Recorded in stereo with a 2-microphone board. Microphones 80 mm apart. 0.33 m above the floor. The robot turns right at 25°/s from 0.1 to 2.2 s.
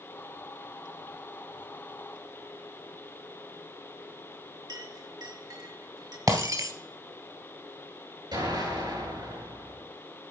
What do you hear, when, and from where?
4.7 s a clink: 60° right (ahead or behind), 1.8 m
6.3 s breaking glass: 50° right (ahead or behind), 1.3 m
8.3 s an explosion: 65° right (ahead or behind), 6.5 m